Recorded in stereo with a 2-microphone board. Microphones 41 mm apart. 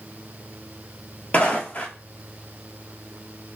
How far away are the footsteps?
About 0.8 m.